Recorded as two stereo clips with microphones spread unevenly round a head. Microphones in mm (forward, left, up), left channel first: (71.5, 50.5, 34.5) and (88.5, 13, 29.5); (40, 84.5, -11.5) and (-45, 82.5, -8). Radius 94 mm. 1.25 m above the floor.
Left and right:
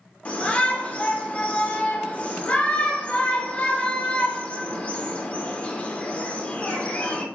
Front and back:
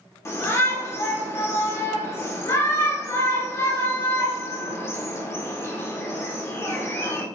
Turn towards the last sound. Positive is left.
turn(degrees=55)